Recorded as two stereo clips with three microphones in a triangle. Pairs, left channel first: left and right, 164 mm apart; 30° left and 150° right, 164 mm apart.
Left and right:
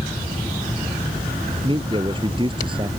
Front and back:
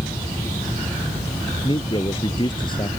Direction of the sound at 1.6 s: 30° right.